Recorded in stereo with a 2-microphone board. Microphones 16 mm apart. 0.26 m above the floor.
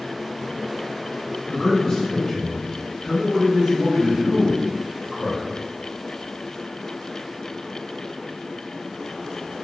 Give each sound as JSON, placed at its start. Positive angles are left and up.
{"t": 1.5, "sound": "a man speaking", "side_deg": 45, "distance_m": 1.4}